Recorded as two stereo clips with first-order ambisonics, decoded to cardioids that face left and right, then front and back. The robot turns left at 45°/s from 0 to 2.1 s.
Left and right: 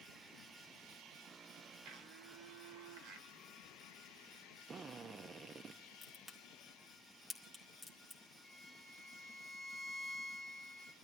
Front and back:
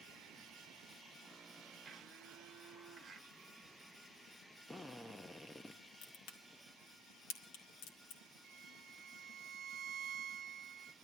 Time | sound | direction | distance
1.8 | a blender | 100° right | 1.6 m
4.7 | a drill | 75° right | 0.6 m
6.0 | a crack | 10° right | 2.0 m
8.4 | a violin | 170° right | 0.6 m